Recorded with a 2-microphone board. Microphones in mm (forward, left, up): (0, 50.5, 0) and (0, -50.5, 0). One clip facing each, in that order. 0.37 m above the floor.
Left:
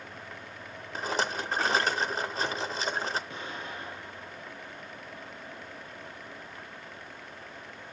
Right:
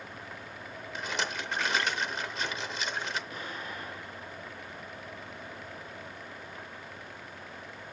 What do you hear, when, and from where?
0.9 s a rattle: 35° left (ahead or behind), 0.6 m
3.3 s an explosion: 25° left (ahead or behind), 3 m